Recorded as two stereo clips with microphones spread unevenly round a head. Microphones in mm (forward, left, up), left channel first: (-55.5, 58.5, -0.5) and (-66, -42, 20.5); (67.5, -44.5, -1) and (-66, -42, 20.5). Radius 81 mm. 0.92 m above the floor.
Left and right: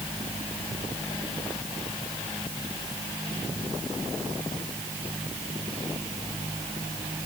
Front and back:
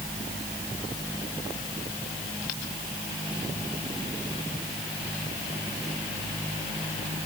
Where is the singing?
I don't hear singing.